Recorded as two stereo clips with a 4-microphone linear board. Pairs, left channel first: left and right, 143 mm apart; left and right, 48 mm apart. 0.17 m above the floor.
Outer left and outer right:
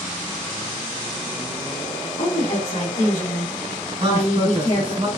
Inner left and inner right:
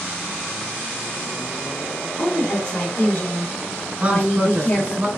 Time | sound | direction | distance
2.2 | a woman speaking | 55° left (ahead or behind) | 2.5 m
4.0 | a man speaking | 45° right (ahead or behind) | 2.5 m